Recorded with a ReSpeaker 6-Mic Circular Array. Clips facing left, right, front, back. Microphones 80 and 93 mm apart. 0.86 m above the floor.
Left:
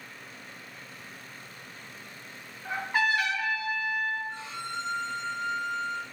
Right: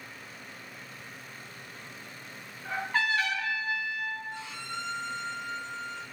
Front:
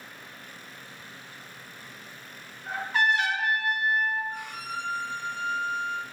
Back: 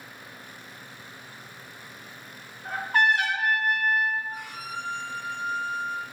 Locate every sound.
2.6 s a trumpet: 165° left, 1.3 m
4.3 s a violin: 95° left, 0.8 m